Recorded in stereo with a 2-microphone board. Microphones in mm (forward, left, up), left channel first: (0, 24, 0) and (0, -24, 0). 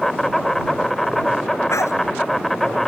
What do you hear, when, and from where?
0.0 s an insect: 5° left (ahead or behind)
1.7 s a dog barking: 85° left